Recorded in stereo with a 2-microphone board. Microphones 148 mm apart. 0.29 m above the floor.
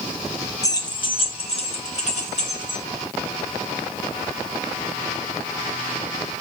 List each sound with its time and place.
0.6 s keys jangling: 20° left (ahead or behind), 1.0 m; by 2.8 s 55° left (ahead or behind), 2.5 m